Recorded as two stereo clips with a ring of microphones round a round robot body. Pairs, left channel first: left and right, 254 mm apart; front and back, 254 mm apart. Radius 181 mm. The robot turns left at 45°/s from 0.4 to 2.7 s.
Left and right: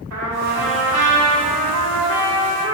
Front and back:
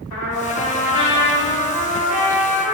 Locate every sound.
0.1 s a trumpet: 45° right, 2 m; by 2.8 s 150° right, 2 m